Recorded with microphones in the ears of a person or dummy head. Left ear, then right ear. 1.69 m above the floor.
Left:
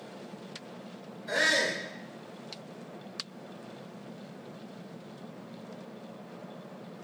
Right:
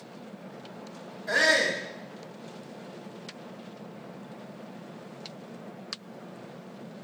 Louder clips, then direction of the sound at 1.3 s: Right 4 dB; 35° right (ahead or behind).